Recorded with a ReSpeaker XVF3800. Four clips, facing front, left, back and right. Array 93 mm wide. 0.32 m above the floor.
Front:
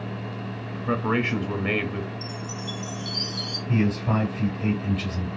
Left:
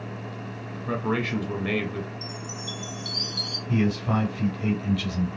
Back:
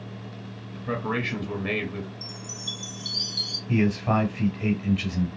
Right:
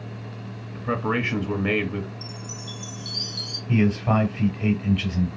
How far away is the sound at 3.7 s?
About 1.8 m.